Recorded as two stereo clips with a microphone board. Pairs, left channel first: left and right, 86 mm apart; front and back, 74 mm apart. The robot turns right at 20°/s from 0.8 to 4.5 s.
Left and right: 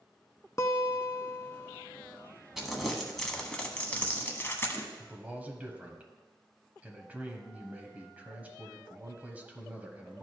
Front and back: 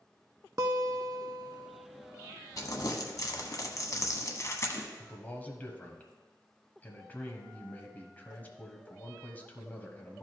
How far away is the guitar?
About 0.5 m.